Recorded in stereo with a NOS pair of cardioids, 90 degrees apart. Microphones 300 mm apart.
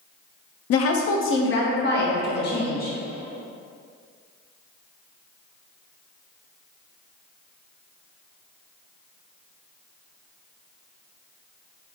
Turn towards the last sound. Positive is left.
turn(degrees=30)